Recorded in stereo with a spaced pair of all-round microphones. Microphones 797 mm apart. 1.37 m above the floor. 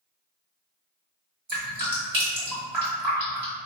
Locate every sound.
1.5 s dripping: 50° right (ahead or behind), 1.3 m